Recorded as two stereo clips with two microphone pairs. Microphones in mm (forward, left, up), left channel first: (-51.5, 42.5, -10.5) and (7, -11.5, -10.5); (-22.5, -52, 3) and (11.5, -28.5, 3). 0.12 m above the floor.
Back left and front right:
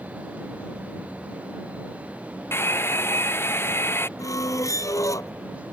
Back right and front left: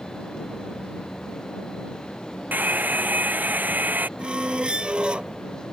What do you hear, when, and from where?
2.5 s a hair dryer: 80° left
4.2 s a squeak: 95° left